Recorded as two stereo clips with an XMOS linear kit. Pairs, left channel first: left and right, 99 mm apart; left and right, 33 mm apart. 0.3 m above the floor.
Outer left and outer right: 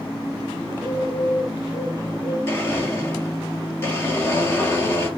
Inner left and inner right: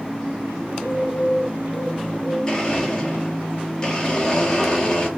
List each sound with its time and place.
0.7 s a bird: 55° right (ahead or behind), 0.9 m
2.5 s a blender: 25° left (ahead or behind), 1.9 m